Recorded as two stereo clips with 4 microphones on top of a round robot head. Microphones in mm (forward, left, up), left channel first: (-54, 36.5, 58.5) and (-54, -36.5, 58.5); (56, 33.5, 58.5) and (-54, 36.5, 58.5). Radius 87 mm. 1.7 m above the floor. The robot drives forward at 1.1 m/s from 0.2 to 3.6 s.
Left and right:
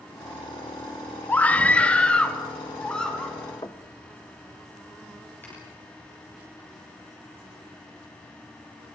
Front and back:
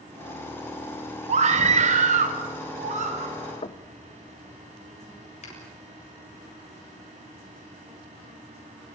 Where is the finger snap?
20° left, 7.5 m.